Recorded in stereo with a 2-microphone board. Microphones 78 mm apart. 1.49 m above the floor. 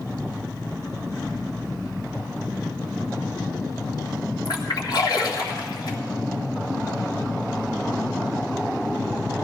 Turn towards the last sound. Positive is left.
turn(degrees=65)  # may be behind; listen again after turning